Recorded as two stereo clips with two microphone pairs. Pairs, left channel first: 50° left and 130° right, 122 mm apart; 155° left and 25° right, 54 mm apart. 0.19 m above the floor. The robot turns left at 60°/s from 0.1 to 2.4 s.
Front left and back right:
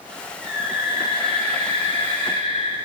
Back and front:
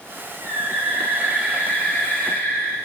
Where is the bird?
40° right, 2.5 m; by 2.7 s 160° right, 2.5 m.